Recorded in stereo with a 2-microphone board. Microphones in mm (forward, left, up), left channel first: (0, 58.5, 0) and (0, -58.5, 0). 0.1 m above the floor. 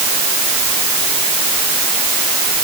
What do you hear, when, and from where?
Only background noise.